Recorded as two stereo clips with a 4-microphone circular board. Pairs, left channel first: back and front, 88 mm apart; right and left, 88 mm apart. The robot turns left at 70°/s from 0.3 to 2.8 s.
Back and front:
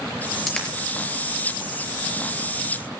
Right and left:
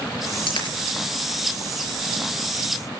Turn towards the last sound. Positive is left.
turn(degrees=110)